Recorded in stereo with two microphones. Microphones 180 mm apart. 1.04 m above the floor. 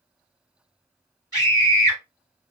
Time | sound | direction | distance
1.3 | a scream | 20° right (ahead or behind) | 1.1 m